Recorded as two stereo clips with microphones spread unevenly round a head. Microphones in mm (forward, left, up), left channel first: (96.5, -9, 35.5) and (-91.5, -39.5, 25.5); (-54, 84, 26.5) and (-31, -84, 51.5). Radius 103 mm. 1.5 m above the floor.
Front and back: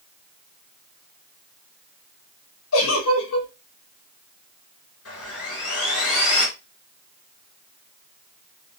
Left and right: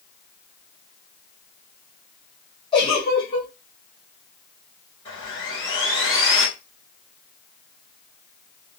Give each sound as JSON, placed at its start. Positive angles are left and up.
{"t": 2.7, "sound": "a giggle", "azimuth_deg": 30, "distance_m": 1.0}
{"t": 5.0, "sound": "sawing", "azimuth_deg": 30, "distance_m": 2.0}